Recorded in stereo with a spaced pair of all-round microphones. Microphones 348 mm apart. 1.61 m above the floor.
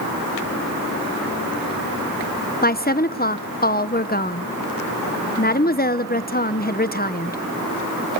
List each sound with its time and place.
2.6 s a woman speaking: 25° left (ahead or behind), 0.9 m